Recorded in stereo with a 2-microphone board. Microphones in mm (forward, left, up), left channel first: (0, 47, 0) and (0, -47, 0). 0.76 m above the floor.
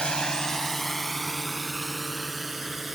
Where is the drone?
10° left (ahead or behind); by 3.0 s 5° right (ahead or behind).